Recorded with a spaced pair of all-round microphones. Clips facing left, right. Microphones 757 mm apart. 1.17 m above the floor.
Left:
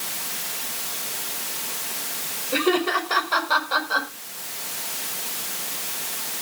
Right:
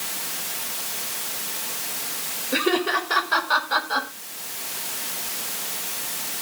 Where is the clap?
I don't hear a clap.